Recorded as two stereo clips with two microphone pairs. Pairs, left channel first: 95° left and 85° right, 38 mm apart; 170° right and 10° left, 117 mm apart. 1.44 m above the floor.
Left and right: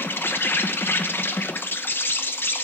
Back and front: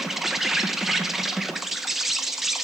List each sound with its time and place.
0.0 s an insect: 100° left, 0.9 m